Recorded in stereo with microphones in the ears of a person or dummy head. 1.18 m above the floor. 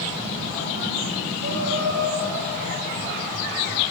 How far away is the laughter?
About 4.5 m.